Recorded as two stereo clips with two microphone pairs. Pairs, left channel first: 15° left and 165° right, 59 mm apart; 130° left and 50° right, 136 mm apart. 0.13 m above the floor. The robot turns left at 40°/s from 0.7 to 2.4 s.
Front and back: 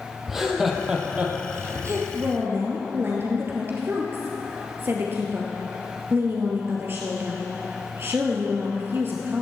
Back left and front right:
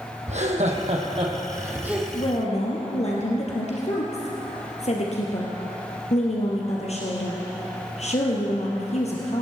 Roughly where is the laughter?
Right.